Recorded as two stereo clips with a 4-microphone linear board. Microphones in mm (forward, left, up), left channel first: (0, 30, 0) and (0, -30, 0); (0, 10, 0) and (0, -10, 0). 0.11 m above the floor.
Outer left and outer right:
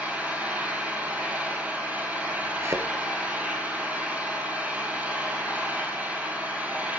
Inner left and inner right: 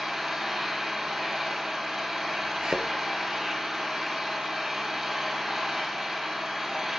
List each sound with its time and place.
0.0 s an engine running: 25° right (ahead or behind), 1.7 m
2.6 s a thud: 55° right (ahead or behind), 0.9 m